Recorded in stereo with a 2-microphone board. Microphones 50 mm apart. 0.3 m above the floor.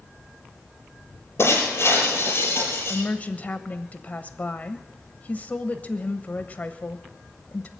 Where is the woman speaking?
35° left (ahead or behind), 1.1 m.